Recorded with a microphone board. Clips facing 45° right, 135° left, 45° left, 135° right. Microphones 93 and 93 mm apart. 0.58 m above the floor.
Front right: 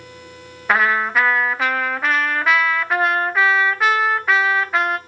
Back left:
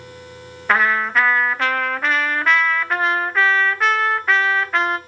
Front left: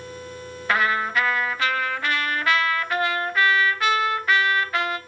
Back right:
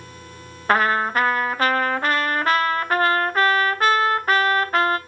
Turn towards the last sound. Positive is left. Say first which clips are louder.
# even, back right 3 dB
turn(degrees=-130)